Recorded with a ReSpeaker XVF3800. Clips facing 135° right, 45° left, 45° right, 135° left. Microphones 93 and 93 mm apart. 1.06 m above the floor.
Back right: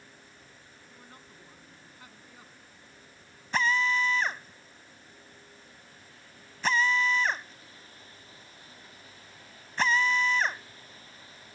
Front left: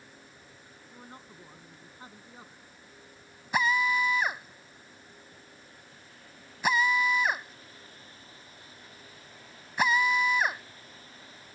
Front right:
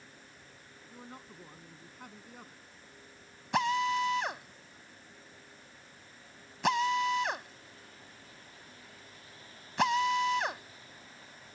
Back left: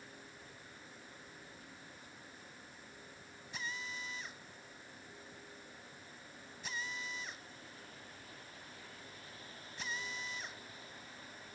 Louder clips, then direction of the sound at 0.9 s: Front left 5 dB, front right 6 dB; 20° right.